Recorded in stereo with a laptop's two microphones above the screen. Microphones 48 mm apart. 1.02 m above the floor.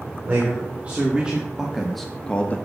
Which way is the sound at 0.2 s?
35° right (ahead or behind).